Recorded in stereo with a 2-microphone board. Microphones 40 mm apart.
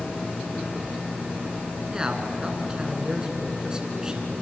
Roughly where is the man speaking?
Right.